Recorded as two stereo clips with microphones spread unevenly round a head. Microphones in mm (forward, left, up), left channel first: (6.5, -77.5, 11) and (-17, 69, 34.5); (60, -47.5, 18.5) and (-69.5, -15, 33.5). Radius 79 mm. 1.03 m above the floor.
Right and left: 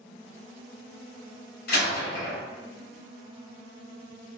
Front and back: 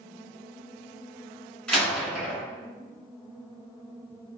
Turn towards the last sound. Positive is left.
turn(degrees=-100)